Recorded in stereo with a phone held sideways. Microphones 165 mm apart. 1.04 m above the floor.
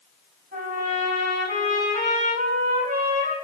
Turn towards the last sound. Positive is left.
turn(degrees=-85)